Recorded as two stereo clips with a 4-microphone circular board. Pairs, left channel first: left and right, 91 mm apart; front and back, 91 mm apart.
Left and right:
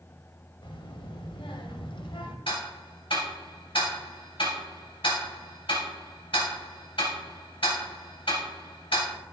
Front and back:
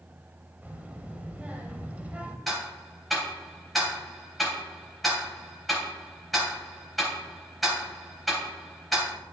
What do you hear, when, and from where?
0.6 s a child speaking: 105° left, 1.5 m
2.5 s ticking: 90° left, 2.5 m